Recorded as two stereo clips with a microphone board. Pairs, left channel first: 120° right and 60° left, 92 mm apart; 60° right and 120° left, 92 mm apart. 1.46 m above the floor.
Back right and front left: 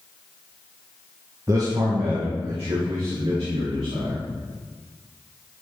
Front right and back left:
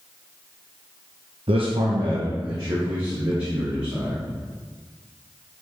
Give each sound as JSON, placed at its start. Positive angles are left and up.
{"t": 1.5, "sound": "a man speaking", "azimuth_deg": 115, "distance_m": 1.0}